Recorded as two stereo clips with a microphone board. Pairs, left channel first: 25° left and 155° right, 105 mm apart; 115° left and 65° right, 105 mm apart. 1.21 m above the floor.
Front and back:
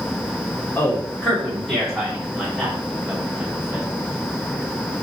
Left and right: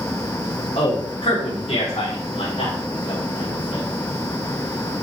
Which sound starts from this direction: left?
A man speaking, at 0.8 s.